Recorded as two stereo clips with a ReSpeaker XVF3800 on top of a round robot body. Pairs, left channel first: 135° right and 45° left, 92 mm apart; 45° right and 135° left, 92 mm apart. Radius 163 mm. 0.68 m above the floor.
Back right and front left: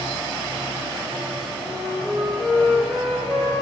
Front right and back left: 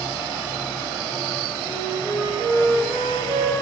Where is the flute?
130° left, 2.5 m.